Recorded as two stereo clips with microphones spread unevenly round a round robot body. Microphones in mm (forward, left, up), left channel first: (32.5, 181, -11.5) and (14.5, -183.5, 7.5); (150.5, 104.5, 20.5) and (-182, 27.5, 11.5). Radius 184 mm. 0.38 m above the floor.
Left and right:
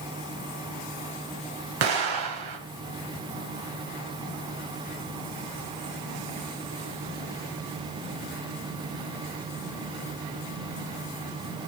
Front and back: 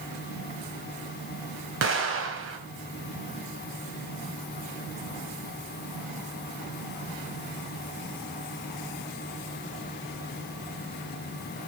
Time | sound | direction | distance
1.8 | an explosion | 115° right | 2.5 m